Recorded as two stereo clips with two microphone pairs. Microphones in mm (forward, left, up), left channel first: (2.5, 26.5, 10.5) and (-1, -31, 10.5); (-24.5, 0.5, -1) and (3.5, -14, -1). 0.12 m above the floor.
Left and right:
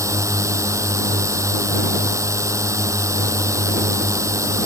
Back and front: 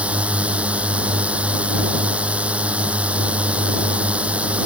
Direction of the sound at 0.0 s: 75° right.